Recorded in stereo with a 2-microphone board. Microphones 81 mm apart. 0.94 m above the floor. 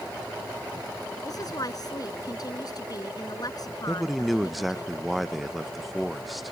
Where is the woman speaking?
50° left (ahead or behind).